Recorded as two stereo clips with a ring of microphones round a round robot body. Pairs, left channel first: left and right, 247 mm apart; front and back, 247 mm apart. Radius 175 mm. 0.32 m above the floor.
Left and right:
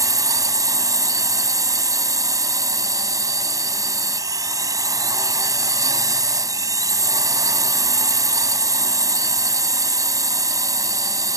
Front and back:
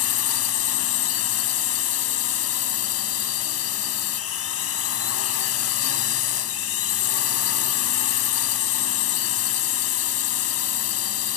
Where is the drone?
15° right.